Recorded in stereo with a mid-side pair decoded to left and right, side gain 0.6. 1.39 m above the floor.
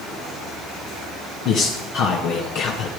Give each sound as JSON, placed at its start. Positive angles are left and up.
{"t": 1.4, "sound": "a man speaking", "azimuth_deg": 65, "distance_m": 1.3}